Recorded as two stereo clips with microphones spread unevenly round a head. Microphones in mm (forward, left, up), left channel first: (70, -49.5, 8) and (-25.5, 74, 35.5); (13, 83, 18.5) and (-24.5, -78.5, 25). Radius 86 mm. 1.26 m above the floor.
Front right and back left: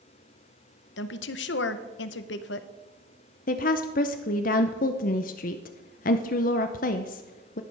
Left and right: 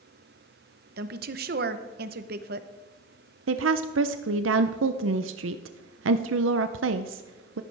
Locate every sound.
1.0 s a woman speaking: 70° right, 0.8 m
3.5 s a woman speaking: 95° right, 0.6 m